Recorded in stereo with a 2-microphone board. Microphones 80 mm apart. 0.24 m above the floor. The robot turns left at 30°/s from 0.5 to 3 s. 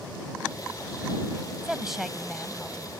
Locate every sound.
1.6 s a woman speaking: 5° right (ahead or behind); by 2.9 s 10° left (ahead or behind)